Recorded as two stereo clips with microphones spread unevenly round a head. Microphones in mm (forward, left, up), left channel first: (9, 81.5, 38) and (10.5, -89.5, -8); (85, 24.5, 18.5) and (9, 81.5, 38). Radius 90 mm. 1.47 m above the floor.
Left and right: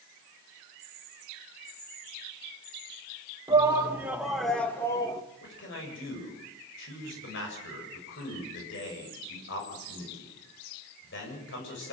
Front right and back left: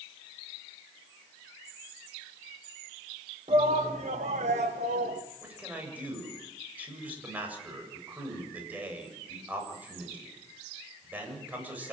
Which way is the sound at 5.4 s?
70° left.